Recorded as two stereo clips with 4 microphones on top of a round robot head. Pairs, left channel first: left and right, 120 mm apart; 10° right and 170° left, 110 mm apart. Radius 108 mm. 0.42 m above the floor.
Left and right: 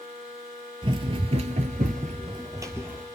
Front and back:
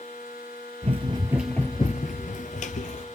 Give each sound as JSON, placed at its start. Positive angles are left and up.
{"t": 0.8, "sound": "running footsteps", "azimuth_deg": -135, "distance_m": 0.7}